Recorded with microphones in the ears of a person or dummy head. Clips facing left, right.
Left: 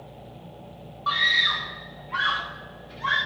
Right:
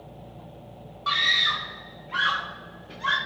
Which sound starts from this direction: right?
A scream, at 1.1 s.